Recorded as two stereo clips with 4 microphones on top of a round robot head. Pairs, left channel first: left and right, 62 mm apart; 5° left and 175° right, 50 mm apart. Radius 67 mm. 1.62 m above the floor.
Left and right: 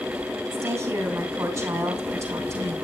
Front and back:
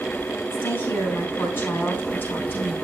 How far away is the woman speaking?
About 3.5 m.